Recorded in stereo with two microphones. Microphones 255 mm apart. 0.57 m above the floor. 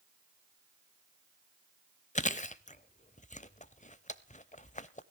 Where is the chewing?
30° left (ahead or behind), 0.7 m.